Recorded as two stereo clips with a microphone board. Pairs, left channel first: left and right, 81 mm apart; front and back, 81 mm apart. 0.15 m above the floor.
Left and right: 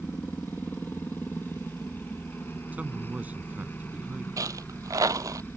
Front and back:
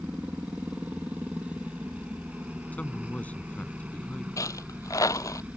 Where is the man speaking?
45° right.